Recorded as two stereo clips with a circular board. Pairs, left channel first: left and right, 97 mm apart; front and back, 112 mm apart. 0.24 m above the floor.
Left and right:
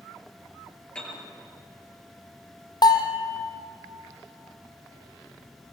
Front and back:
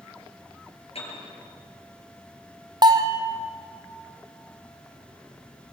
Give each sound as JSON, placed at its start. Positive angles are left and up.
{"t": 0.9, "sound": "a piano", "azimuth_deg": 15, "distance_m": 6.0}
{"t": 2.8, "sound": "a bell", "azimuth_deg": 130, "distance_m": 1.6}